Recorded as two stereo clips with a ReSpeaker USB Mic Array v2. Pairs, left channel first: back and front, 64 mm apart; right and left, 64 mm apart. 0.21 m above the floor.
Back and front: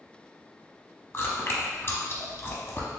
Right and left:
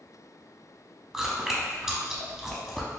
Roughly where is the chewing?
Behind.